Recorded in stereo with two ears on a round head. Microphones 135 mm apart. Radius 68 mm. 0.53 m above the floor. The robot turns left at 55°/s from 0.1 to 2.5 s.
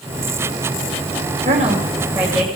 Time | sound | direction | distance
1.4 | a woman speaking | 125° right | 2.5 m